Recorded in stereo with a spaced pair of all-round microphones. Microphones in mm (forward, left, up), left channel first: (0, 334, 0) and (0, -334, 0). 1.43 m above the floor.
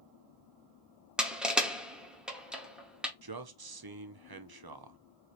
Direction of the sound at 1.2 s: Centre (ahead or behind).